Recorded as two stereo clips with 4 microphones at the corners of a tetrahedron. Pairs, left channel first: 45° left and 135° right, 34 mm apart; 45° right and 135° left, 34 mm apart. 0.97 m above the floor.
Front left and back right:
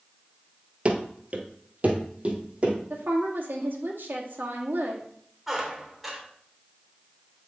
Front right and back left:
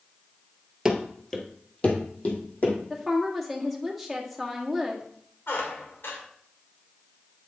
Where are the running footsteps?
155° right, 1.2 m; by 2.8 s 85° right, 3.5 m.